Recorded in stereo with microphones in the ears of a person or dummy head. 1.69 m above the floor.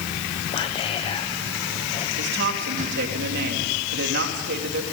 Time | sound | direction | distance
0.5 | whispering | 30° left (ahead or behind) | 1.1 m
2.2 | a woman speaking | 55° right (ahead or behind) | 3.5 m